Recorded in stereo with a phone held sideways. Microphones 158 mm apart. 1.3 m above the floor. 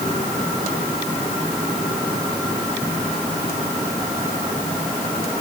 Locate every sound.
Only background noise.